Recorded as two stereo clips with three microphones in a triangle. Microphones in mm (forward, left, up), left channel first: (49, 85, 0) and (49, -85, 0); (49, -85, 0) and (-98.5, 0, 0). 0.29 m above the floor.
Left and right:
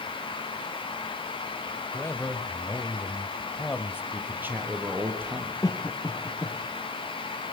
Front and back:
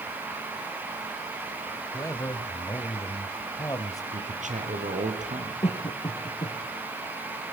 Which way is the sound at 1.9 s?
25° left.